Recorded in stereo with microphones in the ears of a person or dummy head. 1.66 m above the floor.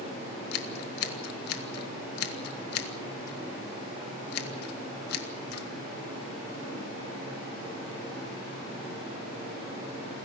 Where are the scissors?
70° left (ahead or behind), 1.4 m.